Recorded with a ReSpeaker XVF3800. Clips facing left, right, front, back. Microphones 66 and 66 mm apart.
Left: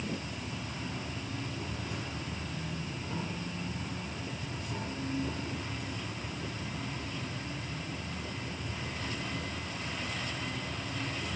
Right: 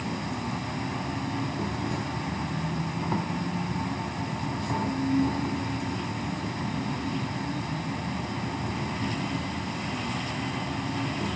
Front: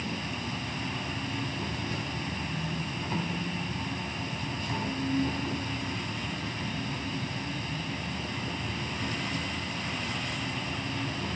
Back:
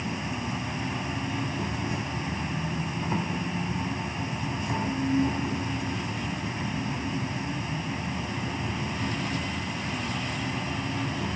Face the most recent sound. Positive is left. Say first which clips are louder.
# right 7 dB, back 3 dB
turn(degrees=-110)